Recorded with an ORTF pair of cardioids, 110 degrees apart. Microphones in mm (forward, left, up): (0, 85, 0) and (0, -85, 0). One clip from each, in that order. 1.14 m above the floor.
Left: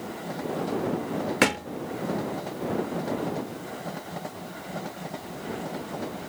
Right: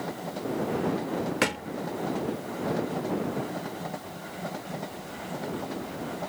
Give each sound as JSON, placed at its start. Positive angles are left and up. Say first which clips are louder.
{"t": 1.4, "sound": "a thud", "louder": "left 6 dB", "azimuth_deg": 20}